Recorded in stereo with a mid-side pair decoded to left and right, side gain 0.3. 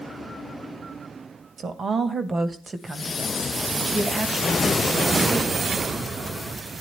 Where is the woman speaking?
65° right, 1.8 m; by 5.8 s 15° right, 3 m.